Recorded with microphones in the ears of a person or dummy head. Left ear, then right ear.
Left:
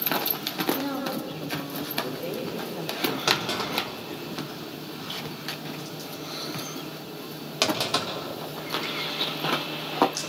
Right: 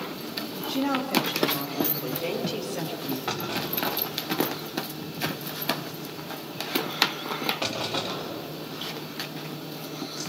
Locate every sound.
0.7 s a woman speaking: 80° right, 2 m; by 3.2 s 55° right (ahead or behind), 4 m
3.3 s a clunk: 80° left, 4 m